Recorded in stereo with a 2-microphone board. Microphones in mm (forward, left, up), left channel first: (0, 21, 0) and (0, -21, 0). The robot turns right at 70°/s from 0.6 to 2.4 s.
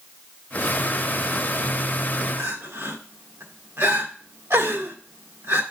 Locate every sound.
2.4 s crying: 80° right, 1.4 m